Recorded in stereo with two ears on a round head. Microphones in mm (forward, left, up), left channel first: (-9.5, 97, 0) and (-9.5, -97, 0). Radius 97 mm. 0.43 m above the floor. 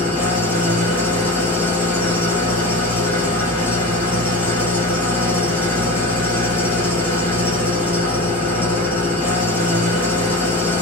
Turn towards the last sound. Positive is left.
turn(degrees=10)  # may be behind; listen again after turning